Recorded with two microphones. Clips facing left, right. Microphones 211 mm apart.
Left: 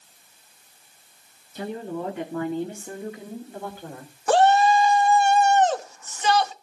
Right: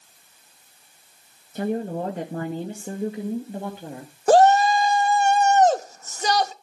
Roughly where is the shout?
Right.